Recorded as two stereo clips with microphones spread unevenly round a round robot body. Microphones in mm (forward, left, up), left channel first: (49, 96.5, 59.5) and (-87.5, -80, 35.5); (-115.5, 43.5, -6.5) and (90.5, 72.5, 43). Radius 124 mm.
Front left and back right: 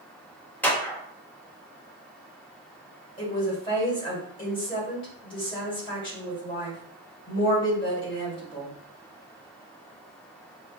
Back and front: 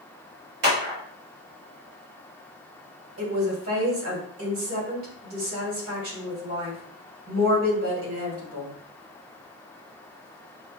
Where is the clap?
30° right, 1.7 m.